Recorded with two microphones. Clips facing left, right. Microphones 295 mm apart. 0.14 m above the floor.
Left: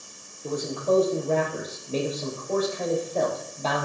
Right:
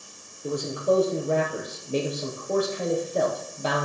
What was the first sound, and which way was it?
A man speaking, 15° right (ahead or behind).